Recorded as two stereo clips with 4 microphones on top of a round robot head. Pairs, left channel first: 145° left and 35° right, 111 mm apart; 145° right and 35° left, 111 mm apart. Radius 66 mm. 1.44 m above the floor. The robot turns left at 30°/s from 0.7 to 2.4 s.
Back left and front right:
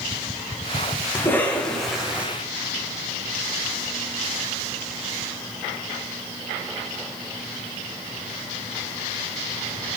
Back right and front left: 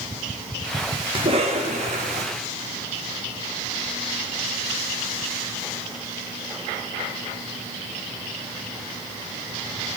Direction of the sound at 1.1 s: 75° left.